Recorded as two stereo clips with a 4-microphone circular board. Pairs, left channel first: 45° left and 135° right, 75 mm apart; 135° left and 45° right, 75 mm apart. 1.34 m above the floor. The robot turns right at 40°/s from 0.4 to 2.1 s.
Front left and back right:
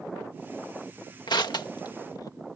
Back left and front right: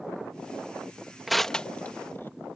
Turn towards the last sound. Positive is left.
turn(degrees=75)